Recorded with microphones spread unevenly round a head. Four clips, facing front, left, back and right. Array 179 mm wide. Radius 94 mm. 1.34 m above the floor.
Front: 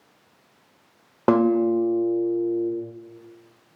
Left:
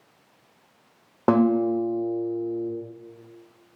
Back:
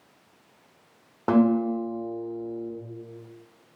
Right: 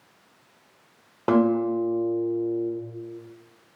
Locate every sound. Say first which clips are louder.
1.3 s a guitar: left 1 dB, front 3 dB; 20° left, 0.7 m